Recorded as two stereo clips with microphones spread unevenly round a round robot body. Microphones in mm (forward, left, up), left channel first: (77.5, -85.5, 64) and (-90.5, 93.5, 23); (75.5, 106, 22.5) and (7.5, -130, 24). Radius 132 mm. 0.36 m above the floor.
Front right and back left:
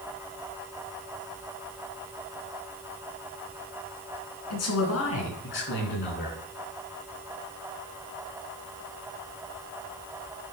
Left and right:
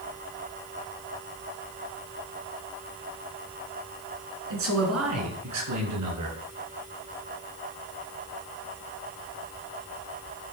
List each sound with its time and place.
4.5 s a man speaking: 75° right, 4.5 m; by 6.4 s 105° right, 5 m